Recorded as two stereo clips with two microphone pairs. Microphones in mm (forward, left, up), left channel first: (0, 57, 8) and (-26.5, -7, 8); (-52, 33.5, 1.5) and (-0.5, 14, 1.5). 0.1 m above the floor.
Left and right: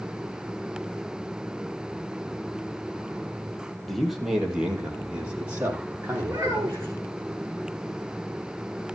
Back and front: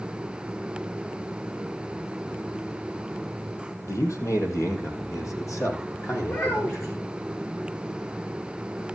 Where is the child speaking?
165° right, 4.5 m.